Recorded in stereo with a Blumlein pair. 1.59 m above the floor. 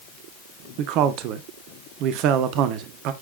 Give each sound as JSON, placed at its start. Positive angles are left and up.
{"t": 0.8, "sound": "a man speaking", "azimuth_deg": -40, "distance_m": 1.4}